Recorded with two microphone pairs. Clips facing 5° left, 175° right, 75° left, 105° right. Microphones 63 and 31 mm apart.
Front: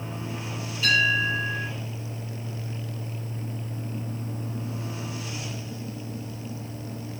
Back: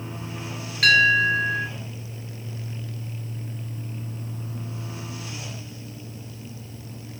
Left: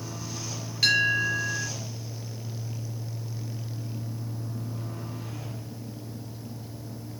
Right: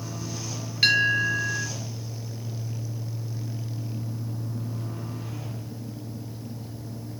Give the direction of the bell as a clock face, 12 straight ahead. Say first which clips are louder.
Back 5 dB, right 2 dB; 6 o'clock.